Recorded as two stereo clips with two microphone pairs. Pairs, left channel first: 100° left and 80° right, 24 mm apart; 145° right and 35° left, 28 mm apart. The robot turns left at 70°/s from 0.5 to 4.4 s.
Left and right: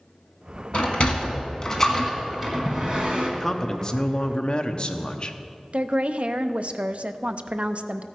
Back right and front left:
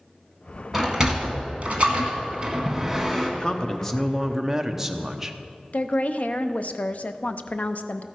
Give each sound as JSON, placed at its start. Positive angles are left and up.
{"t": 0.7, "sound": "a sliding door", "azimuth_deg": 110, "distance_m": 1.6}
{"t": 3.4, "sound": "a man speaking", "azimuth_deg": 180, "distance_m": 0.8}
{"t": 5.7, "sound": "a woman speaking", "azimuth_deg": -115, "distance_m": 0.6}